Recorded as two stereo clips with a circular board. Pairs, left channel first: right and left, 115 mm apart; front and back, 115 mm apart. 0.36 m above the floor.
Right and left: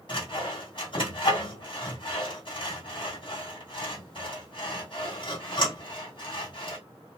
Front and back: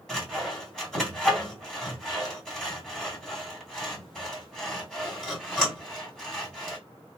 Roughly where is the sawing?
Right.